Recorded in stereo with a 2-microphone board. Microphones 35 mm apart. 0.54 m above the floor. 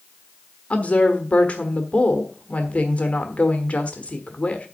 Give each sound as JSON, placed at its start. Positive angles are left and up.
{"t": 0.7, "sound": "a woman speaking", "side_deg": 40, "distance_m": 1.1}